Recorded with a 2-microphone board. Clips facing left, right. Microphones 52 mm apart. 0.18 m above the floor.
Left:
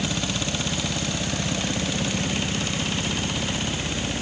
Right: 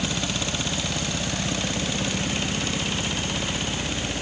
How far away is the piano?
I don't hear a piano.